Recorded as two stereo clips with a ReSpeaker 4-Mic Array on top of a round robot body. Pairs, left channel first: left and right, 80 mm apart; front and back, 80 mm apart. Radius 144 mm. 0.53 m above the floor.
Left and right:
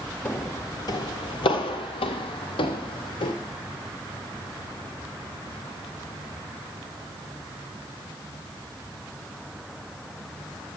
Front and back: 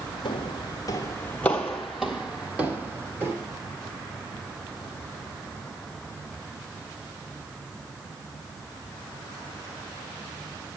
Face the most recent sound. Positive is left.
turn(degrees=115)